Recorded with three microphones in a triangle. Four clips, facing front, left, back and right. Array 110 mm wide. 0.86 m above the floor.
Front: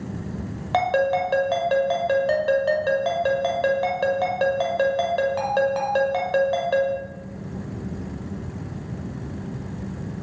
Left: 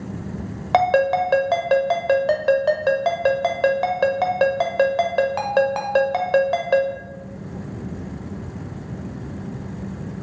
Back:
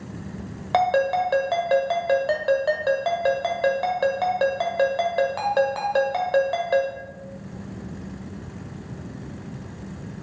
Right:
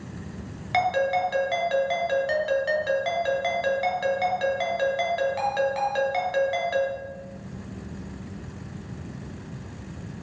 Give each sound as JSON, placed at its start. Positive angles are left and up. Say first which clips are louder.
{"t": 0.7, "sound": "a ringtone", "louder": "left 6 dB, back 1 dB", "azimuth_deg": 95, "distance_m": 1.3}